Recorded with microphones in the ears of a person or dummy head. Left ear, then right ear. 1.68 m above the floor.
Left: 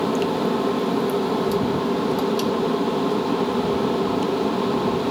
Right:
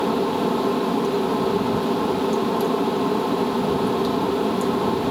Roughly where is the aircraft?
Centre.